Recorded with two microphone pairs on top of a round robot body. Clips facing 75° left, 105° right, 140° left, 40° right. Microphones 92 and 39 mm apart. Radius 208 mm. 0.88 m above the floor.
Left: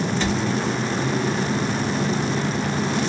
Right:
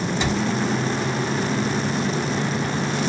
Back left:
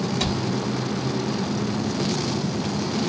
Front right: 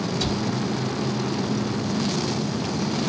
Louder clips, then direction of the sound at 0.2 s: Right 2 dB, even; straight behind.